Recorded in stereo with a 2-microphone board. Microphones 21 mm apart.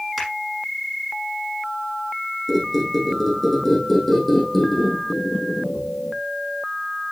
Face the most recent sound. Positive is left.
turn(degrees=10)  # may be behind; listen again after turning